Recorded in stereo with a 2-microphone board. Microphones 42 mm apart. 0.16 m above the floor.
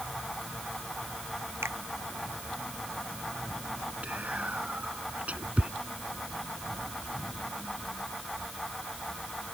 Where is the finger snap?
80° right.